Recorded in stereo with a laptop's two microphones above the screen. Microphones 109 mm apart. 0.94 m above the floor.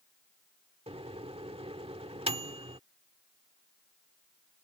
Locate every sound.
0.9 s a microwave: 70° right (ahead or behind)